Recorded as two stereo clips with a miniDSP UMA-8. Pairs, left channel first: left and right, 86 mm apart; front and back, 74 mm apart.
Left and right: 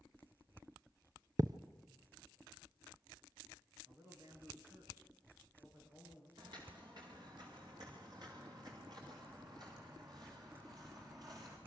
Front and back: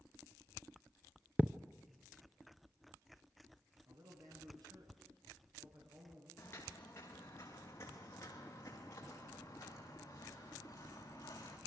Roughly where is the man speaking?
Behind right.